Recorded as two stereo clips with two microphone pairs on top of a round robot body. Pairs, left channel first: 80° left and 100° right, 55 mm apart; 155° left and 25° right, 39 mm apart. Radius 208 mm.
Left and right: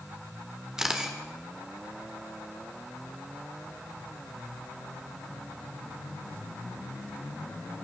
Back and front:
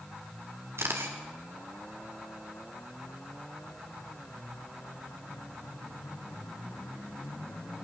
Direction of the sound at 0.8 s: 20° right.